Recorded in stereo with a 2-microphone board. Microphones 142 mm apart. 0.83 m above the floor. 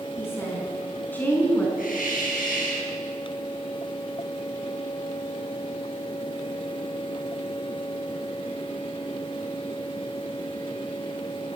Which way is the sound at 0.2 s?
15° left (ahead or behind).